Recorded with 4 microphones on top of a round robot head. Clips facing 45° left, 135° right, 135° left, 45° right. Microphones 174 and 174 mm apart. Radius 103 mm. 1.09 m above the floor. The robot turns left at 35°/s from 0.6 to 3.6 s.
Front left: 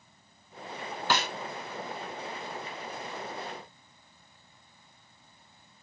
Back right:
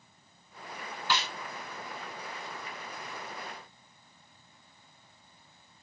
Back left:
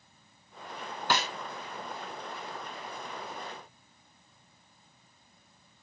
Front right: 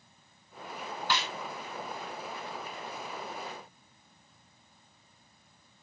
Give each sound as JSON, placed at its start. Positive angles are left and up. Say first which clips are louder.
{"t": 1.1, "sound": "a snare drum", "louder": "front left 3 dB, back left 4 dB", "azimuth_deg": 90}